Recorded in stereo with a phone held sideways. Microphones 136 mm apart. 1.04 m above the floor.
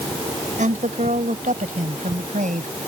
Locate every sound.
0.6 s a woman speaking: 85° right